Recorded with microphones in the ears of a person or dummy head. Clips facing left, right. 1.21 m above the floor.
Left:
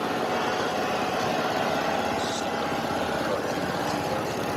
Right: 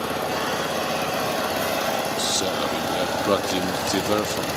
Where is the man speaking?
90° right, 1.9 m.